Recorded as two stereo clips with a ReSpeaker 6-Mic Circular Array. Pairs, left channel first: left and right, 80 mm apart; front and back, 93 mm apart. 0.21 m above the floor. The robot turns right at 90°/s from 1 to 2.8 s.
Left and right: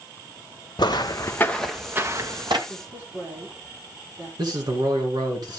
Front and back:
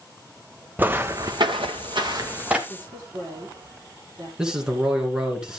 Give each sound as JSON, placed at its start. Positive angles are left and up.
{"t": 0.8, "sound": "footsteps", "azimuth_deg": 110, "distance_m": 0.7}
{"t": 2.7, "sound": "a woman speaking", "azimuth_deg": -140, "distance_m": 5.5}
{"t": 4.4, "sound": "a man speaking", "azimuth_deg": -100, "distance_m": 2.5}